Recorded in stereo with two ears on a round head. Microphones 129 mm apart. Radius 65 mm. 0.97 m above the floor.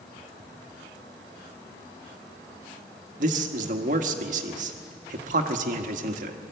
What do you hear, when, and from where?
3.2 s a man speaking: 60° right (ahead or behind), 1.6 m